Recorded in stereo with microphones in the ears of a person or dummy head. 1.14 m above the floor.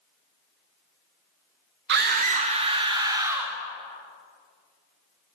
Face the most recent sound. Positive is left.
turn(degrees=-10)  # may be behind; listen again after turning